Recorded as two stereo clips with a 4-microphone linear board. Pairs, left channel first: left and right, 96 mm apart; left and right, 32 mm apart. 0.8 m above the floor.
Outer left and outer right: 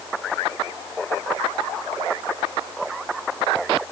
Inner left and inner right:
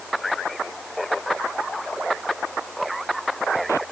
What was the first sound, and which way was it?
Only background noise.